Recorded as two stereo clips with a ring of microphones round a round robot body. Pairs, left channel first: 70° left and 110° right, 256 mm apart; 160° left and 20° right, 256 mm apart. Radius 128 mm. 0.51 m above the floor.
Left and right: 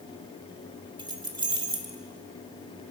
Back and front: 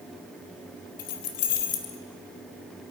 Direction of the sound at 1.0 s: 175° left.